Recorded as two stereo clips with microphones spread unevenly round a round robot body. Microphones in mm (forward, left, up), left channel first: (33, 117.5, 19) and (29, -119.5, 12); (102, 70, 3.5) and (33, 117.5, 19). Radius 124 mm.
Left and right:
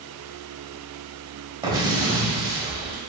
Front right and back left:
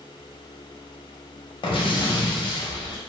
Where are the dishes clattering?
No dishes clattering in this recording.